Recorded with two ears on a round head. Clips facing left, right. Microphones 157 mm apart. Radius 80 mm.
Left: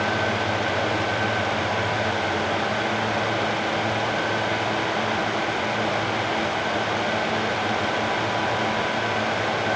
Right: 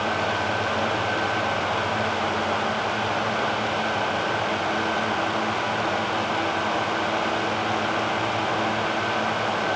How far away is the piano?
I don't hear a piano.